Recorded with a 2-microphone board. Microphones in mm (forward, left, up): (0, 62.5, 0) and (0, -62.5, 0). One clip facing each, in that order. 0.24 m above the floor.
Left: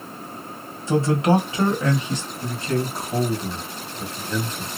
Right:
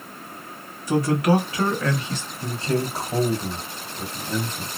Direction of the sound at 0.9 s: 25° left (ahead or behind).